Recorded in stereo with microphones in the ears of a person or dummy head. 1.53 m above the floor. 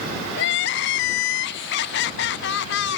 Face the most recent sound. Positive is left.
turn(degrees=60)  # may be behind; listen again after turning